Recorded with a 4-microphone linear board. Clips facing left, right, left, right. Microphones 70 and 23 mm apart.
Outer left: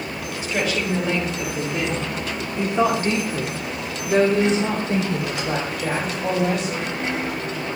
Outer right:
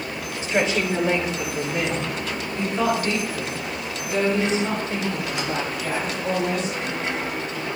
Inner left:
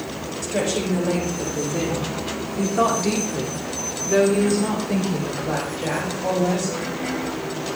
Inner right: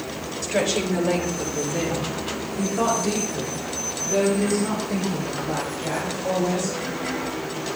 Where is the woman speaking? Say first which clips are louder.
Outer right 2 dB, inner right 1 dB; 25° right (ahead or behind), 4 m; by 7.0 s 85° left, 6 m.